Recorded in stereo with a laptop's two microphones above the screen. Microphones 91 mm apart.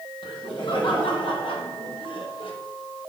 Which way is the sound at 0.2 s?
65° left (ahead or behind).